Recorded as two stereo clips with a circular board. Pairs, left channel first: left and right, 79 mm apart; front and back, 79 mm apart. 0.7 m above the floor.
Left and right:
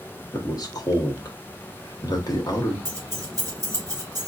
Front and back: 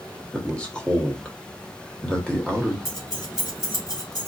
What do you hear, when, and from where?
0.3 s a man speaking: 75° left, 1.1 m
2.9 s keys jangling: 40° right, 2 m